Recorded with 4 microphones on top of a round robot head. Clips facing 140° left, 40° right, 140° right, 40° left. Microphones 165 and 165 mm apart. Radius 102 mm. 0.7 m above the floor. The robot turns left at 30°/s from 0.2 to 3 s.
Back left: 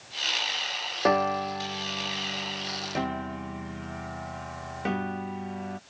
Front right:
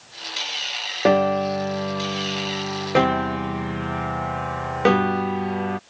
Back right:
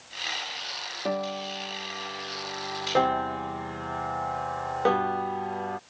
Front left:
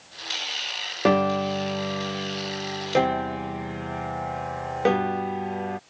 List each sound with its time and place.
1.1 s a piano: 25° left; by 5.8 s 35° right